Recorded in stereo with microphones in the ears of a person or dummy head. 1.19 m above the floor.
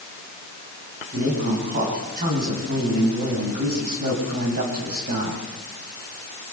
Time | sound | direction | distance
1.1 | a man speaking | 45° right (ahead or behind) | 8 m